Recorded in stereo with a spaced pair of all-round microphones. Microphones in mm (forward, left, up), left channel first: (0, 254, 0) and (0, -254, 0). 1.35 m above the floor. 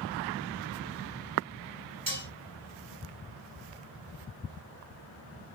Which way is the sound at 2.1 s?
40° right (ahead or behind).